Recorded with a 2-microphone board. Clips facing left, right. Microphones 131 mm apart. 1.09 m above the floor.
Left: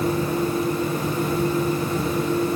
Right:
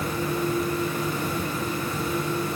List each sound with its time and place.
Only background noise.